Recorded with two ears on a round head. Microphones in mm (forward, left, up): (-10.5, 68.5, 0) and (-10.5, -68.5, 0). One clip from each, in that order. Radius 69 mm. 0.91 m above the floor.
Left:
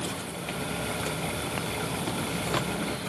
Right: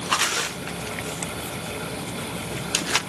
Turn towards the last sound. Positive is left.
No sound to turn to.